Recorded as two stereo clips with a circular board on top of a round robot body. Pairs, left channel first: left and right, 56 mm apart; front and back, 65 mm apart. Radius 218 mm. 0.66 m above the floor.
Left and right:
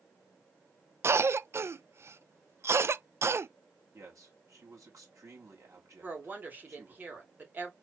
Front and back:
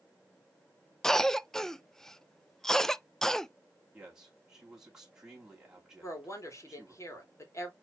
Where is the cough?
80° right, 0.6 m.